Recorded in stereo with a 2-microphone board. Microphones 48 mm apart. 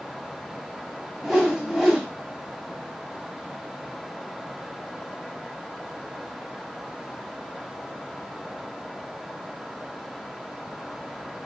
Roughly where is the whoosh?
Centre.